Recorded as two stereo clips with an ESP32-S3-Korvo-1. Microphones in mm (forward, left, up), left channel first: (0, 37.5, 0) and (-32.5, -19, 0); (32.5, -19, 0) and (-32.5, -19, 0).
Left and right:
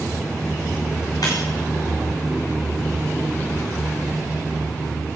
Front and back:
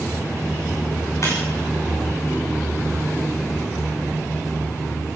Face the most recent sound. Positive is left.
turn(degrees=40)